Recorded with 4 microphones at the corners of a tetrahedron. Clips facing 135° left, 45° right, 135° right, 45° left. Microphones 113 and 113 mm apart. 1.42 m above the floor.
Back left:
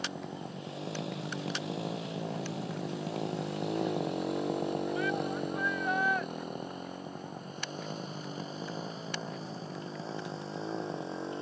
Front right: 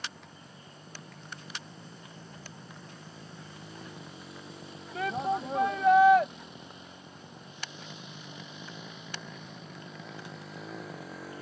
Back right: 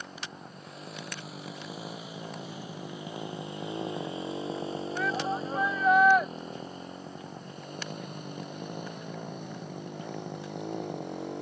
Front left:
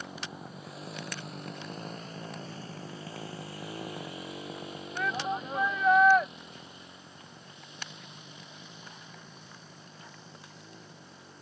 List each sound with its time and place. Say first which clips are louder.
0.0 s a motorcycle: back left 8 dB, front left 1 dB; 130° left; by 11.4 s 160° right
5.0 s a shout: front right 1 dB, even; 50° right